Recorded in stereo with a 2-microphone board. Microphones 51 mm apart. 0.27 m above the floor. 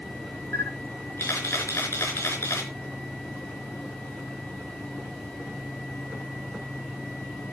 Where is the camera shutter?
55° left (ahead or behind), 4.5 m.